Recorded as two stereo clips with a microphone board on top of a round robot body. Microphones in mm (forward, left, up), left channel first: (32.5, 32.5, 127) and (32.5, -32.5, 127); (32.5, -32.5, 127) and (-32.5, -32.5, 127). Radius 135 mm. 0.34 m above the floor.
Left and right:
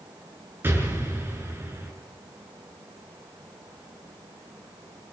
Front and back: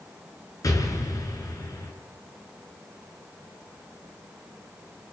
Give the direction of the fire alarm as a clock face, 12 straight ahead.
No fire alarm in this recording.